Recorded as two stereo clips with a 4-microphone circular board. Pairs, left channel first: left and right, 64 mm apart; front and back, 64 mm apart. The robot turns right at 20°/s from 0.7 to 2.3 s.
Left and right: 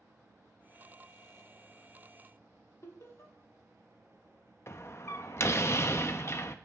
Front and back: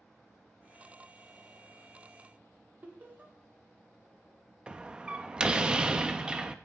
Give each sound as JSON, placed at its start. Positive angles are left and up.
{"t": 2.8, "sound": "laughter", "azimuth_deg": 120, "distance_m": 1.9}
{"t": 4.7, "sound": "a door slam", "azimuth_deg": 110, "distance_m": 0.6}